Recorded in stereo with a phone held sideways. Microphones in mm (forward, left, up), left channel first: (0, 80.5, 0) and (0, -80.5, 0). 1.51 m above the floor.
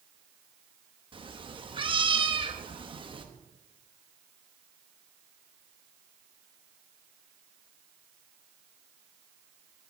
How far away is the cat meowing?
About 0.9 m.